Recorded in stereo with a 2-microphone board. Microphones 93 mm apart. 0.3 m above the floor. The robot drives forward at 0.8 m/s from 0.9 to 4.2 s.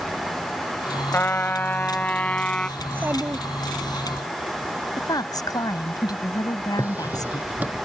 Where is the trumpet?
25° left (ahead or behind); by 2.7 s 10° left (ahead or behind).